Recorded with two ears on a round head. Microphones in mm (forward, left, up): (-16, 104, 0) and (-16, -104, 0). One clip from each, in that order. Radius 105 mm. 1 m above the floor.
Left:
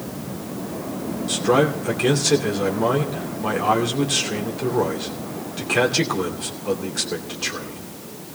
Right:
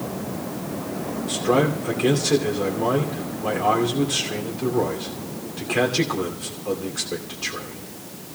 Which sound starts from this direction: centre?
A man speaking, at 1.3 s.